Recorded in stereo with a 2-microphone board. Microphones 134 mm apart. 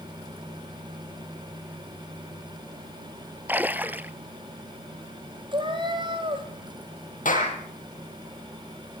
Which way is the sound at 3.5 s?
15° right (ahead or behind).